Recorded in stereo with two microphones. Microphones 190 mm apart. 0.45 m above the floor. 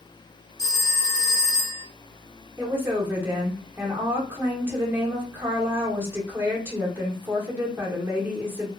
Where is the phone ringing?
60° left (ahead or behind), 1.6 m.